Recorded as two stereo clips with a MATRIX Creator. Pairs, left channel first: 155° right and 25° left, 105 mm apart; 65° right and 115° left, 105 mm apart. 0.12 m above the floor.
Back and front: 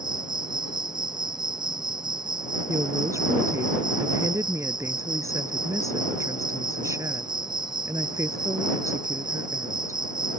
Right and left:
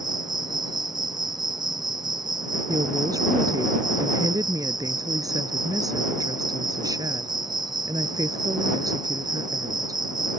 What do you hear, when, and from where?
0.0 s an insect: 65° left
2.7 s a woman speaking: 75° left